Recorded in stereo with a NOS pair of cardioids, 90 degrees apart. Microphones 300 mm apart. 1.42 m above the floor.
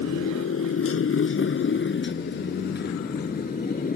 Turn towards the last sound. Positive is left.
turn(degrees=30)